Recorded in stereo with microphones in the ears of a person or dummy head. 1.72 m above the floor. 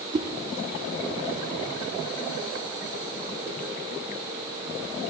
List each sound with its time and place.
0.1 s a whoosh: 30° right (ahead or behind), 0.8 m